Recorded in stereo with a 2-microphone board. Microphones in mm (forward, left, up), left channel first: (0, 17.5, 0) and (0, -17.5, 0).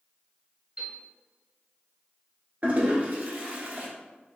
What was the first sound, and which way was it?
A piano, 35° right (ahead or behind).